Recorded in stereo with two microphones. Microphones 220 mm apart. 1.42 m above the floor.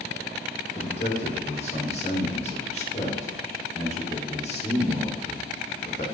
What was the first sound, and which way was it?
A man speaking, 30° left (ahead or behind).